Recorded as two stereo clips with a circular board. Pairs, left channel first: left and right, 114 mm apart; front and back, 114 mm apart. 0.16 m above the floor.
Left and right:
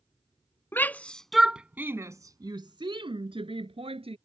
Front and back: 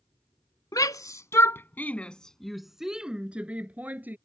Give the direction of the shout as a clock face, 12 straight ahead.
11 o'clock.